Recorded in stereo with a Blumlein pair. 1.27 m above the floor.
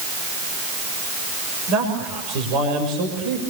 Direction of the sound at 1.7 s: 40° right.